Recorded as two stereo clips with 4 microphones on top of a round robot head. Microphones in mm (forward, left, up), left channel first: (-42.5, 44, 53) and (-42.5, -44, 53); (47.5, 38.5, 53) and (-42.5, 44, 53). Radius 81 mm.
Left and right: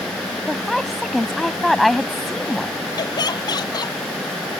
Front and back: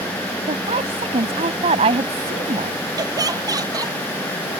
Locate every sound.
0.5 s a woman speaking: straight behind
3.0 s laughter: 130° left